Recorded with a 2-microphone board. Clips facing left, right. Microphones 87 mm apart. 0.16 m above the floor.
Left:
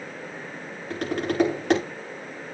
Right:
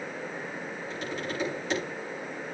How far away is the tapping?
About 10 m.